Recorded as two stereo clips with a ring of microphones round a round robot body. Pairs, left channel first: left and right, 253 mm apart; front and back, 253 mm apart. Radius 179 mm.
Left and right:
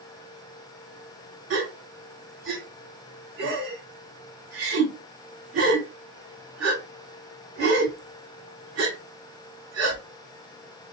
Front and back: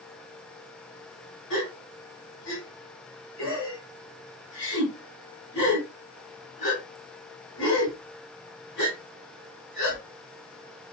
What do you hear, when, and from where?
1.5 s a gasp: 60° right, 2 m